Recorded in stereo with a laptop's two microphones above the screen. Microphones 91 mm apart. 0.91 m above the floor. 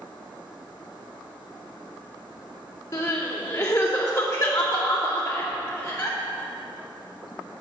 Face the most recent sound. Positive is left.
turn(degrees=30)  # may be behind; listen again after turning